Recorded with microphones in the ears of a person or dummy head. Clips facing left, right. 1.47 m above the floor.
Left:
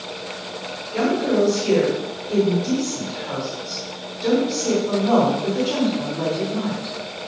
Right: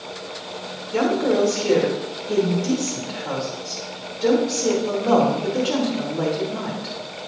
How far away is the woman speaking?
About 2.5 m.